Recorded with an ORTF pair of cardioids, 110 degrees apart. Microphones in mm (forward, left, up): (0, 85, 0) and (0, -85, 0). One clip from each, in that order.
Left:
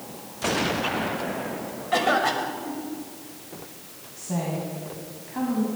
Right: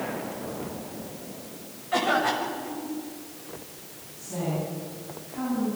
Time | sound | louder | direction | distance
1.9 | a cough | left 2 dB | 25° left | 7 m
4.2 | a woman speaking | left 1 dB | 65° left | 9 m